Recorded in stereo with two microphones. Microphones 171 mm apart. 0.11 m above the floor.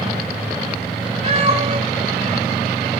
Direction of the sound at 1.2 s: 35° right (ahead or behind).